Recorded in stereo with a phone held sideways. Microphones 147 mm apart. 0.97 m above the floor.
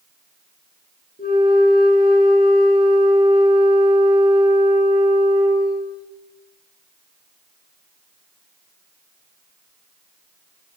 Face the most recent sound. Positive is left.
turn(degrees=90)